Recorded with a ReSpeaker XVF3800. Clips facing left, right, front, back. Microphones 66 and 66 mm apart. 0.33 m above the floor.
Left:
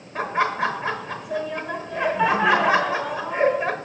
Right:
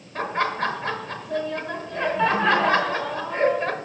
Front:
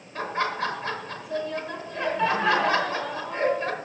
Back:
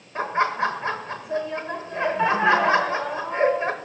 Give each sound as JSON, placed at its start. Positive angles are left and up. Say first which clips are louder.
{"t": 0.1, "sound": "laughter", "louder": "left 2 dB, back 5 dB", "azimuth_deg": 150, "distance_m": 0.9}